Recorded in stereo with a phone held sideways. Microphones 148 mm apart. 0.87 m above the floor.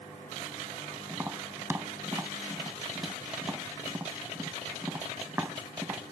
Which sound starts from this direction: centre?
Tapping, at 1.1 s.